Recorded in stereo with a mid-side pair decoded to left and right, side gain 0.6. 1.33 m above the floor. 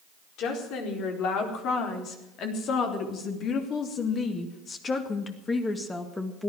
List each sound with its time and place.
0.4 s a woman speaking: 65° left, 4.5 m; by 6.5 s 10° left, 2.0 m